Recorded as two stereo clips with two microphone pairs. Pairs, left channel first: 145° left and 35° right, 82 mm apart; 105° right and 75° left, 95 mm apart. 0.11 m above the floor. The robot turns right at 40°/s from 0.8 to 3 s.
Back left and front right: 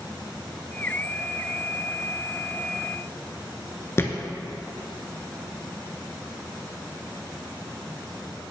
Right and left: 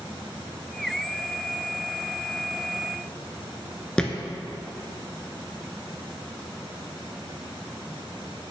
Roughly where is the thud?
Behind.